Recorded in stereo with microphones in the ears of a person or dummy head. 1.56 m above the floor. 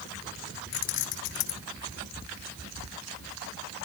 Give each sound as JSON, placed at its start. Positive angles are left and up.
{"t": 0.7, "sound": "keys jangling", "side_deg": 55, "distance_m": 1.0}